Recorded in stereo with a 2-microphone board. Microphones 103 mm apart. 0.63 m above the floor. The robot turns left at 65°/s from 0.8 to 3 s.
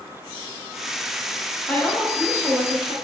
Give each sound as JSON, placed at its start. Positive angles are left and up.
{"t": 1.7, "sound": "a woman speaking", "azimuth_deg": 25, "distance_m": 0.8}